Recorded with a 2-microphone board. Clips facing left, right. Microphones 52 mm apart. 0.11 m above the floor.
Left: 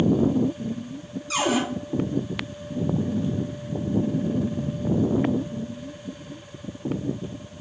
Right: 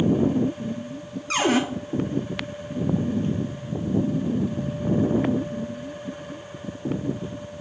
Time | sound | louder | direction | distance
1.3 | a cupboard door | right 2 dB | 50° right (ahead or behind) | 0.7 m